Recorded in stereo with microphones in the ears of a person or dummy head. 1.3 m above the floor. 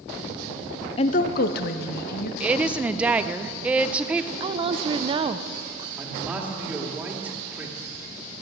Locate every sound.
1.0 s a woman speaking: 30° left (ahead or behind), 0.5 m; by 2.3 s 55° left (ahead or behind), 1.7 m
2.4 s a woman speaking: 10° right (ahead or behind), 0.6 m
4.4 s a woman speaking: 30° right (ahead or behind), 0.6 m
6.0 s a man speaking: 15° right (ahead or behind), 2.5 m